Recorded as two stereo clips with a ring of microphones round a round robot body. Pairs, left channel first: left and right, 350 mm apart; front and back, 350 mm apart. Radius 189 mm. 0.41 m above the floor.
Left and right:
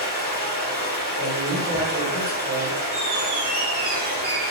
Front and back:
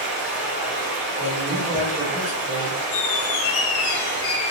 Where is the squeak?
25° right, 0.6 m.